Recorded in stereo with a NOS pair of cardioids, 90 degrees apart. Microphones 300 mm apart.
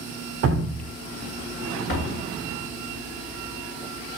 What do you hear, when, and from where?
0.4 s dripping: 50° right, 0.5 m
1.9 s a door slam: 45° left, 1.8 m